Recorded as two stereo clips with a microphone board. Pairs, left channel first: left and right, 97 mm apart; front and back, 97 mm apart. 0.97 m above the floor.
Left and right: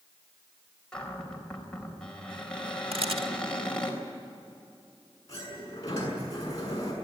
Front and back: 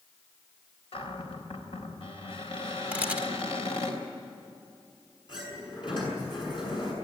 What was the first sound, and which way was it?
A cupboard door, 10° left.